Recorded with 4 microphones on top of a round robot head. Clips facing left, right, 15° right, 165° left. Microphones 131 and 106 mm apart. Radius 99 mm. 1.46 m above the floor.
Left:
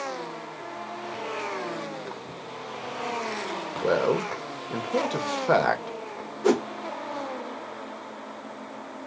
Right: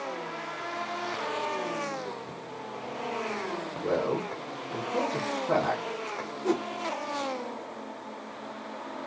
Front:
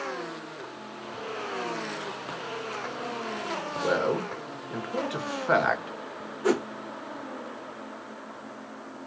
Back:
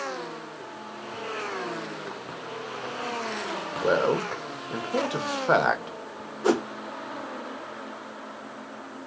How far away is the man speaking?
About 1.7 m.